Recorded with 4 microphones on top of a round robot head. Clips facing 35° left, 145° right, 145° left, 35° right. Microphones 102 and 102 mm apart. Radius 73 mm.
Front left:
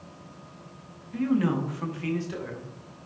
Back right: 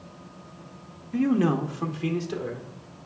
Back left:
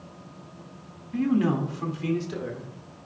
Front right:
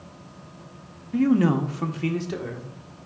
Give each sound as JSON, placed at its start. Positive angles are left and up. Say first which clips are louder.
{"t": 1.1, "sound": "a man speaking", "louder": "back right 2 dB, front right 4 dB", "azimuth_deg": -95, "distance_m": 0.6}